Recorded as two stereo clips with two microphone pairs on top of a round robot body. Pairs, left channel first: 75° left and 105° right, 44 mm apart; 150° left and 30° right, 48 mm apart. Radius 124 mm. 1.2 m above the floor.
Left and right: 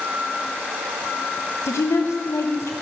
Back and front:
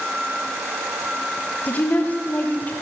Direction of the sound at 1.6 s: 90° left.